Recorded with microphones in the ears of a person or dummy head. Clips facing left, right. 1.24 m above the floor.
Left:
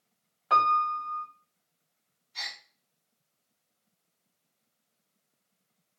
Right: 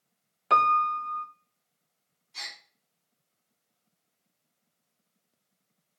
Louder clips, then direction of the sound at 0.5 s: Right 2 dB; 35° right (ahead or behind).